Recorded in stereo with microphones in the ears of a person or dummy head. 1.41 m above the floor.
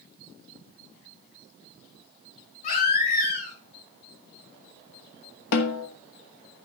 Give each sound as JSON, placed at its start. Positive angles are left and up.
{"t": 2.6, "sound": "a baby crying", "side_deg": 55, "distance_m": 5.0}
{"t": 5.5, "sound": "a snare drum", "side_deg": 60, "distance_m": 1.0}